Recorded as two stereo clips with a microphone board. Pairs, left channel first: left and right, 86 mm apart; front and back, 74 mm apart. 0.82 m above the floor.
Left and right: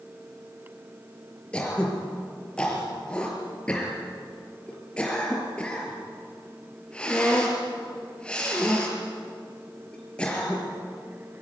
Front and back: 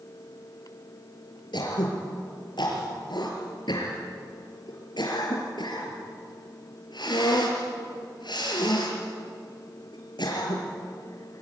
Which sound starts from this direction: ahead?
Throat clearing, at 1.5 s.